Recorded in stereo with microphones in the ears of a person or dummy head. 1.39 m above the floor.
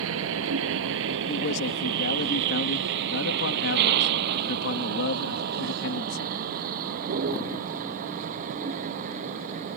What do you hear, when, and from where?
0.0 s a vehicle: 75° right (ahead or behind); by 9.8 s 45° right (ahead or behind)
1.3 s a man speaking: 65° left (ahead or behind)